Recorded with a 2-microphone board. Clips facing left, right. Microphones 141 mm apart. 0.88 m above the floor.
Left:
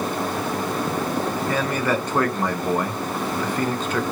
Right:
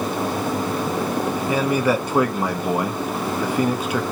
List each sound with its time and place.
1.5 s a man speaking: 10° right (ahead or behind), 0.6 m